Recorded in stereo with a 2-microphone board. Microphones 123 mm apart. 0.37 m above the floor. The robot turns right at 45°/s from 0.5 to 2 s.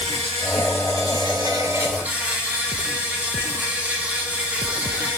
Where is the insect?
80° right, 1.1 m; by 5.2 s 10° right, 1.1 m.